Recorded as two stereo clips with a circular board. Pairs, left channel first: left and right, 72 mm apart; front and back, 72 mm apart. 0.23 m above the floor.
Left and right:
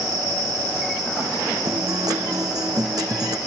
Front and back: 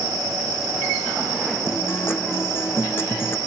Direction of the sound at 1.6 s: 60° right.